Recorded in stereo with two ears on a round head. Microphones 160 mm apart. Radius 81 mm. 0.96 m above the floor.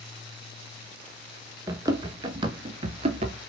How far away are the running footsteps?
About 1.2 m.